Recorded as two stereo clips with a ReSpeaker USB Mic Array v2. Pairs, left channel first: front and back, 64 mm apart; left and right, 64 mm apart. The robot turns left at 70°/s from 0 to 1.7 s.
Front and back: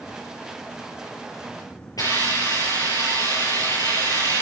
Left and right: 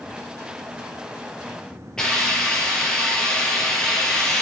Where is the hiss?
15° left, 5.5 m.